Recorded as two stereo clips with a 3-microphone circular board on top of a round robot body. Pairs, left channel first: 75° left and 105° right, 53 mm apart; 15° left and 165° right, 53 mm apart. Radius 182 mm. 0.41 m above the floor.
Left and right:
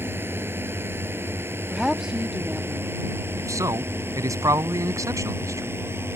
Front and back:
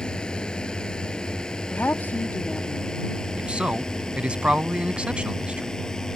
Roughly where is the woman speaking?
Ahead right.